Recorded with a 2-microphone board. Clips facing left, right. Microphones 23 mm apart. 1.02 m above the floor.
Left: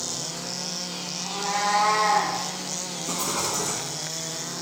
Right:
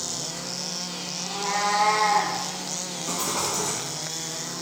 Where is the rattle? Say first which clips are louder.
Even; 45° right (ahead or behind), 1.2 m.